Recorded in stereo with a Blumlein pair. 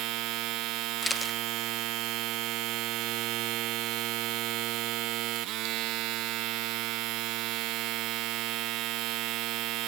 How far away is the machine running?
About 1.3 m.